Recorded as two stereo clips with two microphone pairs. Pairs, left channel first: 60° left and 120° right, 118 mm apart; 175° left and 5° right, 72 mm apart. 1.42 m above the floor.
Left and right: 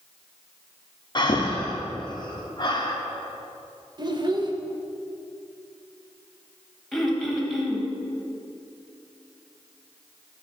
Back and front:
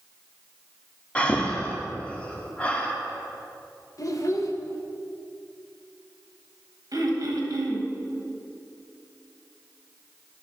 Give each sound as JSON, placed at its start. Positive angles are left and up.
{"t": 1.1, "sound": "breathing", "azimuth_deg": 105, "distance_m": 0.7}
{"t": 4.0, "sound": "a child speaking", "azimuth_deg": -165, "distance_m": 0.8}
{"t": 6.9, "sound": "throat clearing", "azimuth_deg": -30, "distance_m": 1.0}